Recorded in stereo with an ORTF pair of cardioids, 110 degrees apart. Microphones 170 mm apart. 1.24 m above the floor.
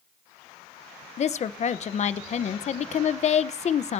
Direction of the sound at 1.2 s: 40° left.